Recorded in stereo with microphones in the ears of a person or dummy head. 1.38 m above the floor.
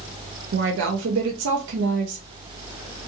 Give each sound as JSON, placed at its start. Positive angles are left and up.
{"t": 0.5, "sound": "a woman speaking", "side_deg": -70, "distance_m": 0.6}